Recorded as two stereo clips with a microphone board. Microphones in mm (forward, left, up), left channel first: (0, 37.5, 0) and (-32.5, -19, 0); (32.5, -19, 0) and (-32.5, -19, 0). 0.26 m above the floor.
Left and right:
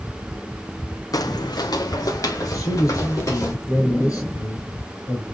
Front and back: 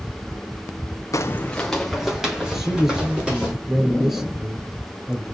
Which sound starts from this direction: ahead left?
Footsteps, at 1.1 s.